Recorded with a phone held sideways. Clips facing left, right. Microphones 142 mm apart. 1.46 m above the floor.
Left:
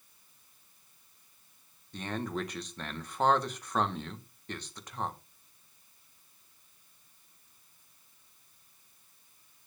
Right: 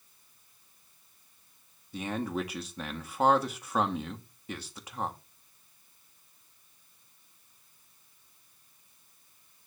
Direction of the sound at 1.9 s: 5° right (ahead or behind).